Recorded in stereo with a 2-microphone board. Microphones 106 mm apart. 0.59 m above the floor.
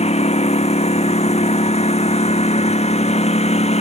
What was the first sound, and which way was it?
A lawn mower, 85° left.